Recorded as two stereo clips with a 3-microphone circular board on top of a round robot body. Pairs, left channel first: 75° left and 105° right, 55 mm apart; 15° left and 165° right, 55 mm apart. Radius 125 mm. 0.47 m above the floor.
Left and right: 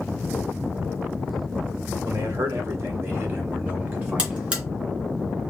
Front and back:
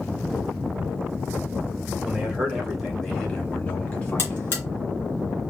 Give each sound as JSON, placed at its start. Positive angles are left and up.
{"t": 2.0, "sound": "a man speaking", "azimuth_deg": -80, "distance_m": 2.0}
{"t": 4.2, "sound": "a buzzer", "azimuth_deg": -40, "distance_m": 1.8}